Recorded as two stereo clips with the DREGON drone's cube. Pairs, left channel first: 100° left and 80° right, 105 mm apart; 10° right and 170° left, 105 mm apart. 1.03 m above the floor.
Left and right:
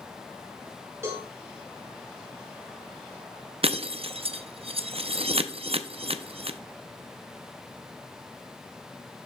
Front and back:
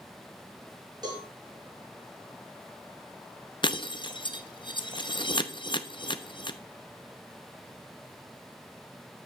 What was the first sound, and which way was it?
A cowbell, 140° right.